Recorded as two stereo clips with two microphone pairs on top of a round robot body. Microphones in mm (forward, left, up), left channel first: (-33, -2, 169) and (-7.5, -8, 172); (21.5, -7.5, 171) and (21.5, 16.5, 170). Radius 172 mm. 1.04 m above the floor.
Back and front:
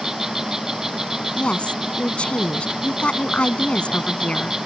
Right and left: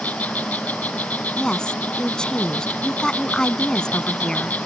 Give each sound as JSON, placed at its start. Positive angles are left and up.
{"t": 0.0, "sound": "an insect", "azimuth_deg": -90}
{"t": 1.4, "sound": "a woman speaking", "azimuth_deg": -150}